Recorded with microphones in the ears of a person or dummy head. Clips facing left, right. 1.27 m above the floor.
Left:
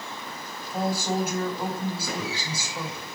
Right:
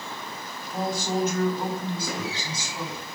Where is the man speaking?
15° left (ahead or behind), 3 m.